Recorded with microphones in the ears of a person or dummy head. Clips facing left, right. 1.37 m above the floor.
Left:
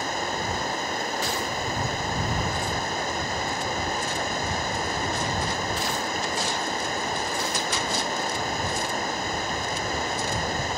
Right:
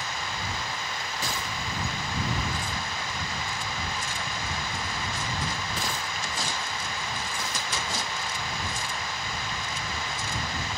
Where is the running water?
40° left (ahead or behind).